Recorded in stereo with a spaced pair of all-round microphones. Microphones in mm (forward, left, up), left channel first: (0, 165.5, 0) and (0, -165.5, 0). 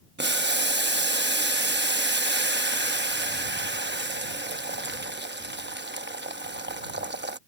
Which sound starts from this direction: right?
Boiling, at 0.2 s.